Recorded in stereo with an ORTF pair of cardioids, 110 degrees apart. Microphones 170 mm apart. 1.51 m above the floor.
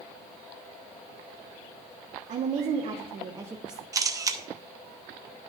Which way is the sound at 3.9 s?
20° right.